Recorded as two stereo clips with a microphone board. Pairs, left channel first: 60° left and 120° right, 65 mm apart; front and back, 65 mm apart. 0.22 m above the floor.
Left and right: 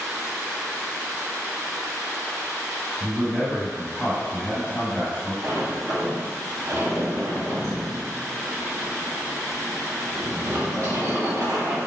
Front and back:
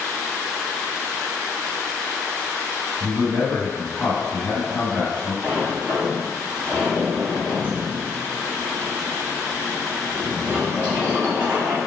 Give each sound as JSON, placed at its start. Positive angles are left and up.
{"t": 3.0, "sound": "a man speaking", "azimuth_deg": 45, "distance_m": 1.2}
{"t": 5.4, "sound": "a sliding door", "azimuth_deg": -125, "distance_m": 1.9}